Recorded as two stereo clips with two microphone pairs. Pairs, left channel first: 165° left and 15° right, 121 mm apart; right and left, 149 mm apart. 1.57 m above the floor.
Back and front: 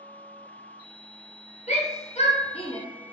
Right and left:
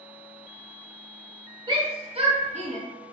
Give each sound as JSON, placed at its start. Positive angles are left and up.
{"t": 1.7, "sound": "a shout", "azimuth_deg": 150, "distance_m": 1.3}